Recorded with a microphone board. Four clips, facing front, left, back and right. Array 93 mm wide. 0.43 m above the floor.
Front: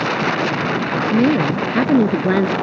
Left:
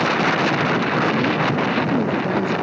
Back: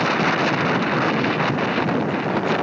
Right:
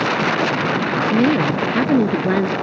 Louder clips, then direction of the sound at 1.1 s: Right 3 dB, front 5 dB; 35° right.